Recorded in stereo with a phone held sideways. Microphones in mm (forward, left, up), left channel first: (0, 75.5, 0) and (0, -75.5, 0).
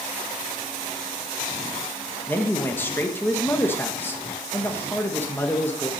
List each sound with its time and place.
2.3 s a man speaking: 15° left (ahead or behind), 1.5 m